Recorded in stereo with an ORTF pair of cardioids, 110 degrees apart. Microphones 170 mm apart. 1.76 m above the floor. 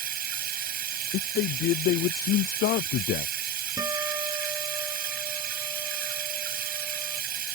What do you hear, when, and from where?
0.0 s running water: 55° right
1.1 s a man speaking: 65° left
3.8 s a guitar: 20° right